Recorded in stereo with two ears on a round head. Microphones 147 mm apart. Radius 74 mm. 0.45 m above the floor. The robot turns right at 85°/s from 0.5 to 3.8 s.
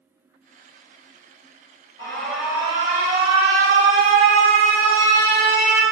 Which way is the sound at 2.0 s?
155° left.